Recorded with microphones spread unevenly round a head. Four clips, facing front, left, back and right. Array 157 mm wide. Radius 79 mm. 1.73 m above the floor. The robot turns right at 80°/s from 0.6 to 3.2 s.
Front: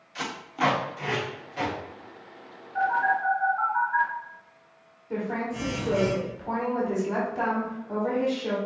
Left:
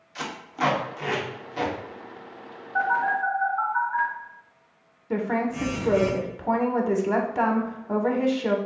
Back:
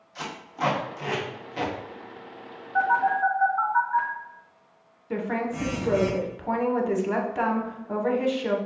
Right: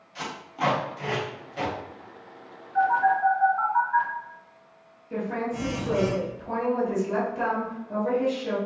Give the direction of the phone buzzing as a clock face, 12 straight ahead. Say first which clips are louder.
Right 2 dB, back 2 dB; 6 o'clock.